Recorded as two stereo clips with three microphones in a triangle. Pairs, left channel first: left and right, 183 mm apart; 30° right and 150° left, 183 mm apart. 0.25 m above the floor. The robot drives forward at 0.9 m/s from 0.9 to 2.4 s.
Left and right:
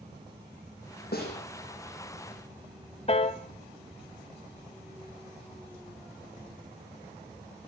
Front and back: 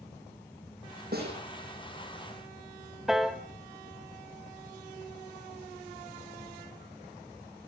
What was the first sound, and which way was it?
A snare drum, 120° left.